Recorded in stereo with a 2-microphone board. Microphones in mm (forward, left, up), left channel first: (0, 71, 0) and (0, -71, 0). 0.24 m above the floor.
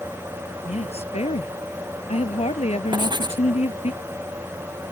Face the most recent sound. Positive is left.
turn(degrees=-30)  # may be behind; listen again after turning